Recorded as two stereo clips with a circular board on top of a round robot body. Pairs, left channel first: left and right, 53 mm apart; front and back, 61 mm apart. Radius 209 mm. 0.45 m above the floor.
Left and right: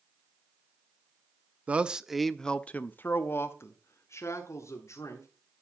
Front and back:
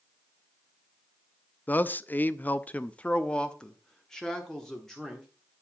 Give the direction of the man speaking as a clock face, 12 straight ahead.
1 o'clock.